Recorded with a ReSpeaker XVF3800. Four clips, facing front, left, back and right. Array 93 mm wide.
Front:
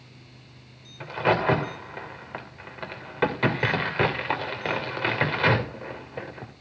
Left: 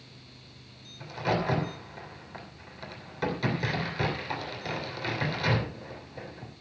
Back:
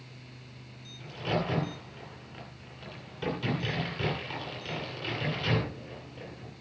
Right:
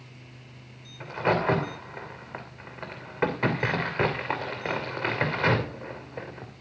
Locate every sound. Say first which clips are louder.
1.0 s a crack: right 4 dB, front 9 dB; 30° right, 3 m